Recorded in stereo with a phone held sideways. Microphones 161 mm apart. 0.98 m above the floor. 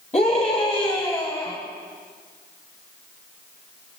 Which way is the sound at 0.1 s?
45° left (ahead or behind).